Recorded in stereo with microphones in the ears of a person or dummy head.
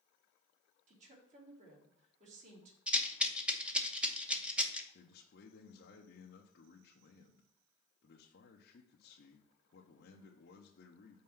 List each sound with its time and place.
0.9 s a woman speaking: 45° right (ahead or behind), 3 m
2.9 s a rattle: 10° right (ahead or behind), 0.9 m
4.9 s a man speaking: 45° left (ahead or behind), 0.8 m